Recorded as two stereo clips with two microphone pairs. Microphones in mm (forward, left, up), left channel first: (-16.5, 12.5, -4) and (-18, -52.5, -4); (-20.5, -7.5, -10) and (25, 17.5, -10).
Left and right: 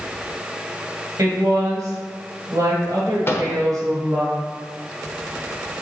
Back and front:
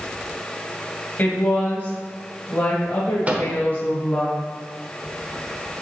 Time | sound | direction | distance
1.2 | a woman speaking | 105° right | 2 m
3.3 | a microwave | 65° left | 1.1 m